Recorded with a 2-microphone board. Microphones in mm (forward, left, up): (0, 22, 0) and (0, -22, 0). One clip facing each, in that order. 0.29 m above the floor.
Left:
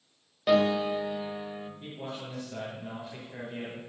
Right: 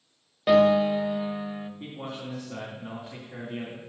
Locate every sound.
0.5 s a piano: 10° right (ahead or behind), 0.7 m
1.8 s a man speaking: 50° right (ahead or behind), 3 m